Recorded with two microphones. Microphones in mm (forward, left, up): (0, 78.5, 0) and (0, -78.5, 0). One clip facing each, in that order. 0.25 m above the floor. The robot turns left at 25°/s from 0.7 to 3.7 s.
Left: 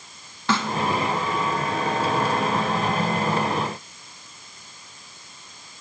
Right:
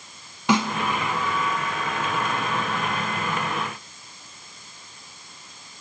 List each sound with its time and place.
0.5 s a snare drum: 15° right (ahead or behind), 0.9 m